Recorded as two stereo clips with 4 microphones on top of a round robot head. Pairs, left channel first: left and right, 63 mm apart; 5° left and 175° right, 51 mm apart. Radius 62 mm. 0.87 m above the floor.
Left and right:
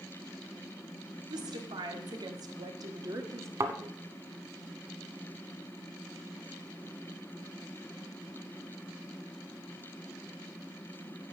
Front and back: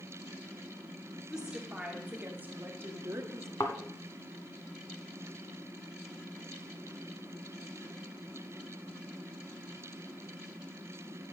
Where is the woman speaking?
95° right, 2 m; by 3.5 s 140° right, 1.5 m.